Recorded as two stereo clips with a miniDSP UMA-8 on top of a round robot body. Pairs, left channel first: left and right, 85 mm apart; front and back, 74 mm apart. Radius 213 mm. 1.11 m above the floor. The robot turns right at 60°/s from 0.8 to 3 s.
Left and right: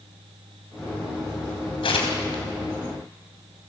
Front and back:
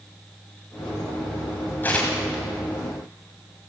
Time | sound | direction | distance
1.8 | tearing paper | 65° left | 3 m